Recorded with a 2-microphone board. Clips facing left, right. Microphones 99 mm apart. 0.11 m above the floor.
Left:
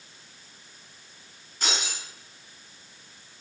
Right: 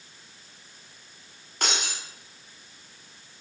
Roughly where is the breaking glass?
Right.